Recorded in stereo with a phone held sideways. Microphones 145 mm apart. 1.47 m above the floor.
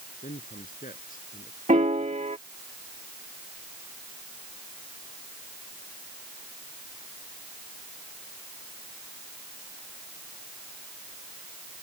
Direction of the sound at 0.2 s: 75° left (ahead or behind).